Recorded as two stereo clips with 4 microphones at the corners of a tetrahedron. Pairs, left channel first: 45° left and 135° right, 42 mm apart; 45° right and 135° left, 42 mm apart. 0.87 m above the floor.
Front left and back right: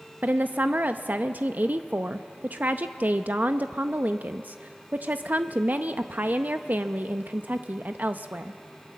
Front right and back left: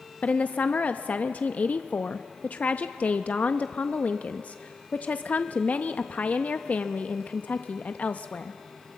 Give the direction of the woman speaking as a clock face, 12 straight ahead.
3 o'clock.